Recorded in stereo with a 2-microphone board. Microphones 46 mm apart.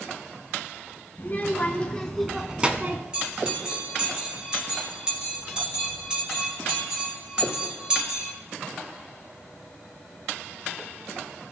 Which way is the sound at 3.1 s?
15° right (ahead or behind).